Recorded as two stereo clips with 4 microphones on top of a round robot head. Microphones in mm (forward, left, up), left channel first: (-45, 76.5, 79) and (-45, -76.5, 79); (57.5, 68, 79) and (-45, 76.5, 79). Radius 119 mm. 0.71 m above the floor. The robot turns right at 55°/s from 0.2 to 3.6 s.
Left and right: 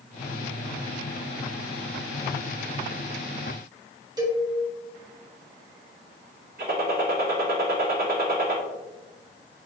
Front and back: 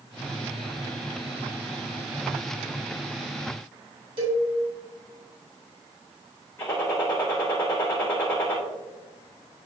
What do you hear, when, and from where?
4.2 s a cowbell: 155° right, 2.5 m
6.6 s a gunshot: 70° right, 2.5 m